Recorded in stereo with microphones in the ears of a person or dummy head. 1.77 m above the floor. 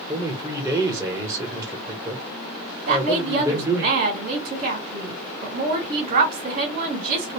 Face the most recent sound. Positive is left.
turn(degrees=-55)  # may be behind; listen again after turning